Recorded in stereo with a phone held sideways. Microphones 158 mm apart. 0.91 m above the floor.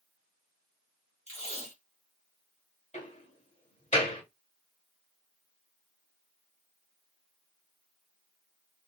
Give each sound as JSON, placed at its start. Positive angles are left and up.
{"t": 1.3, "sound": "tape being pulled", "side_deg": 45, "distance_m": 2.5}
{"t": 2.9, "sound": "a door slam", "side_deg": 45, "distance_m": 2.5}